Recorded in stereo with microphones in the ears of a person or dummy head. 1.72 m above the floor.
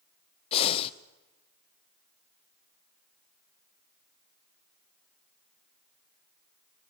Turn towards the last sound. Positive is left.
turn(degrees=40)  # may be behind; listen again after turning